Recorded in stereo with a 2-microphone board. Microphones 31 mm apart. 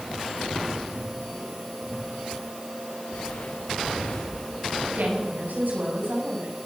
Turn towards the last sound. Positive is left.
turn(degrees=-80)